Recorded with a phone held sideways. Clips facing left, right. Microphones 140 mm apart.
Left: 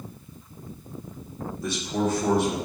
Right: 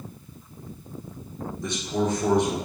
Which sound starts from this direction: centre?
A man speaking, at 1.6 s.